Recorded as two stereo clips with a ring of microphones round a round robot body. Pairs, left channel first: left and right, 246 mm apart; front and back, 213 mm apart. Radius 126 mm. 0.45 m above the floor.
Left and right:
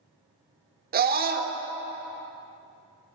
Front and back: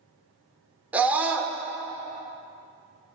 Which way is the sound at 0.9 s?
100° right.